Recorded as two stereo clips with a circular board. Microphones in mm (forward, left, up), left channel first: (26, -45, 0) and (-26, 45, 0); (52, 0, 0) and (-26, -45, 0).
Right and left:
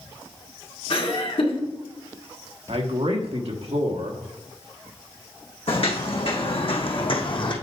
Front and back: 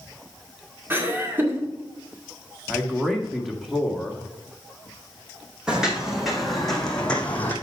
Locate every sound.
0.9 s laughter: 85° right, 2 m
2.7 s a man speaking: 120° left, 1.5 m
5.7 s footsteps: 70° right, 2 m; by 7.5 s 35° right, 1.6 m